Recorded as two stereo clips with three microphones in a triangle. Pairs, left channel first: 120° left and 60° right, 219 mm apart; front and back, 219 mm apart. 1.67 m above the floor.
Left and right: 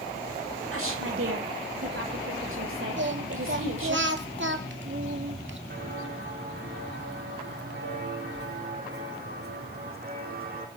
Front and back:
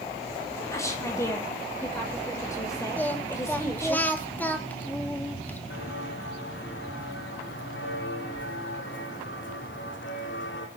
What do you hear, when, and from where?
0.7 s a woman speaking: 75° right, 7 m
3.0 s singing: 80° right, 2.0 m
5.7 s footsteps: 25° right, 6 m; by 10.7 s 20° right, 3.5 m